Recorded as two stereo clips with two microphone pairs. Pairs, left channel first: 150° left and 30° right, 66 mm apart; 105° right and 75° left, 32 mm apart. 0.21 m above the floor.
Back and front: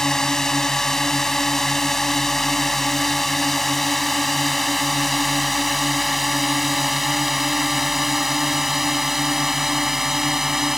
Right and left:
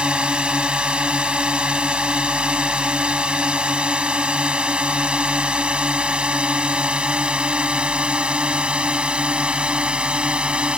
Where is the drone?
75° left; by 10.8 s 50° left.